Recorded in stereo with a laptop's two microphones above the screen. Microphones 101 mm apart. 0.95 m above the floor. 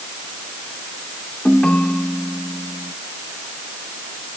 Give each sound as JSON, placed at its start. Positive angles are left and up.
{"t": 1.4, "sound": "a ringtone", "side_deg": 10}